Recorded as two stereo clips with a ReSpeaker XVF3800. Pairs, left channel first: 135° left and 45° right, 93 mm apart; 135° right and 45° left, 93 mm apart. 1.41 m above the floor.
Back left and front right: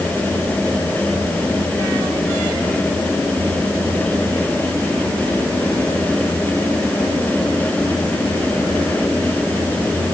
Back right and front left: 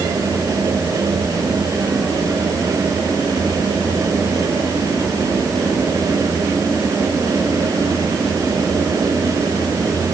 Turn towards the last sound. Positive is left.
No sound to turn to.